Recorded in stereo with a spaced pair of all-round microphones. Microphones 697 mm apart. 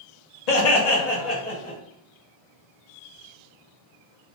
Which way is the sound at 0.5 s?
65° left (ahead or behind).